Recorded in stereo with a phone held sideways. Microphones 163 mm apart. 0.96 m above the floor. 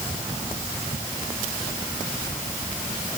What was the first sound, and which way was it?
Only background noise.